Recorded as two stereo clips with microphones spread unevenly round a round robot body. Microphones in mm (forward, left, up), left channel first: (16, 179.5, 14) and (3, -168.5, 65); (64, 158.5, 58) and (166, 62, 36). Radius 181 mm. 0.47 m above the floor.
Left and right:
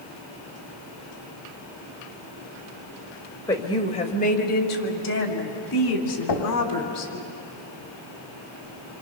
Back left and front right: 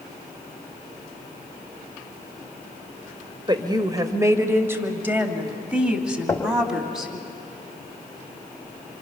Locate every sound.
3.5 s a woman speaking: 10° left, 1.7 m; by 7.3 s 45° left, 4 m
6.3 s knocking: 60° left, 3 m